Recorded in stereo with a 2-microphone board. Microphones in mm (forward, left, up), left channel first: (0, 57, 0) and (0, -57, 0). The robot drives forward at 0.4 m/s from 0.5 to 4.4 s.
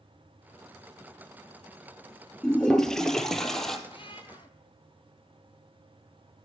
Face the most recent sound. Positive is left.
turn(degrees=40)  # may be behind; listen again after turning